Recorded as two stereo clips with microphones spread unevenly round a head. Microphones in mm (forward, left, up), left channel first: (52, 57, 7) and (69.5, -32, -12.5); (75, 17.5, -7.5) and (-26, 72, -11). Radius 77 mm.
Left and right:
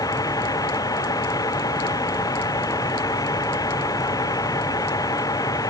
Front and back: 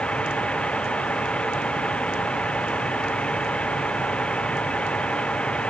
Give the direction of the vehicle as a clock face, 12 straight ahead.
10 o'clock.